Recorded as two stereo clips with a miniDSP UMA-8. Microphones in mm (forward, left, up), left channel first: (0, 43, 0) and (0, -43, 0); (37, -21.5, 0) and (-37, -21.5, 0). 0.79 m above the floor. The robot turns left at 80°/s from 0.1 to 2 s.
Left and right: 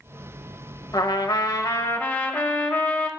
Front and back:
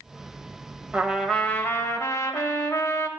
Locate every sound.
0.9 s a trumpet: 110° left, 0.8 m; by 3.1 s 25° left, 0.8 m